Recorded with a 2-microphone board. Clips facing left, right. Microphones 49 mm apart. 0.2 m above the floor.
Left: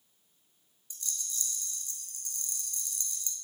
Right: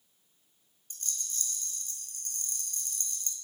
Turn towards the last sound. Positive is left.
turn(degrees=-50)  # may be behind; listen again after turning